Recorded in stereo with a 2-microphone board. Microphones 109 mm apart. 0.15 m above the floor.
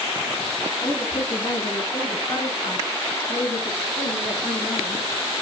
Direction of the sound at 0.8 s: 45° left (ahead or behind).